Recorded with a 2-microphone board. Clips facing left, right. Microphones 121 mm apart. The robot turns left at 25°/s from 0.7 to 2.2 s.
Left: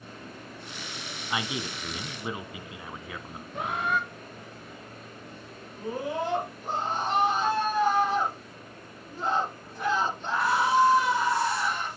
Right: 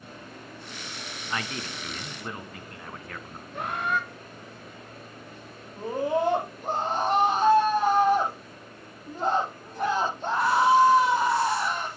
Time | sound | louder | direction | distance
1.3 | a man speaking | left 2 dB | 15° left (ahead or behind) | 1.0 m
3.5 | a bird | even | centre (ahead or behind) | 1.0 m
5.8 | a scream | right 5 dB | 50° right (ahead or behind) | 8 m